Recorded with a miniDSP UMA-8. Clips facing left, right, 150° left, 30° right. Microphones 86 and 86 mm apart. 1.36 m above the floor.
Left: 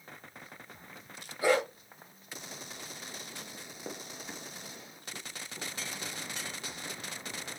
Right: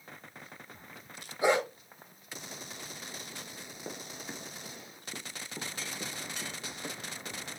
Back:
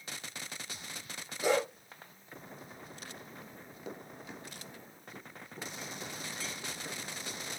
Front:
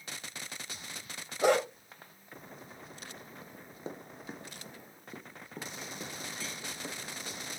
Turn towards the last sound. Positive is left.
turn(degrees=-65)